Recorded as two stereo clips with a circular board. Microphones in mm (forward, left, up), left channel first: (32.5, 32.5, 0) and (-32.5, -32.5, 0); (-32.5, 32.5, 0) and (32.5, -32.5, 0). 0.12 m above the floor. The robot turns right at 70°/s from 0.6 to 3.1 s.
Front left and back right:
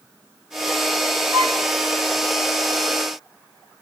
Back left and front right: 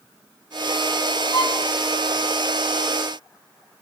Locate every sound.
1.3 s a violin: 175° right, 3 m; by 1.6 s 150° right, 3 m